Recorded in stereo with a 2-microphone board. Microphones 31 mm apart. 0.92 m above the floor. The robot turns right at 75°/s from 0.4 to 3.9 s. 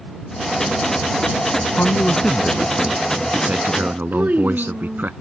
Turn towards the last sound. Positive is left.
turn(degrees=-65)  # may be behind; listen again after turning